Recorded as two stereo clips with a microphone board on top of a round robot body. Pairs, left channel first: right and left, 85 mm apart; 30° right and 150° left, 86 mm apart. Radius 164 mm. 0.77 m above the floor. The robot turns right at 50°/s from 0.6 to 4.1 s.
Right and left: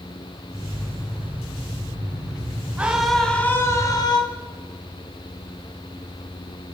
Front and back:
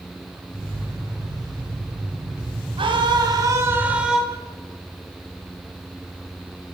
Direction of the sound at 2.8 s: 165° left.